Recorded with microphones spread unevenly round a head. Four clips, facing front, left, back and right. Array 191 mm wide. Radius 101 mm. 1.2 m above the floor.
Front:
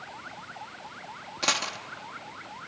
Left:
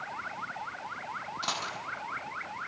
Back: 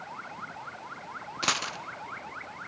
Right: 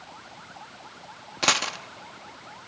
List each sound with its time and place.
1.4 s a dropped coin: 110° right, 0.9 m